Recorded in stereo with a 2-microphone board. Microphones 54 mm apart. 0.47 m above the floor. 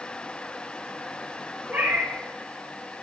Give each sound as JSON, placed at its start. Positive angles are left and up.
{"t": 1.7, "sound": "a cat meowing", "side_deg": -35, "distance_m": 2.5}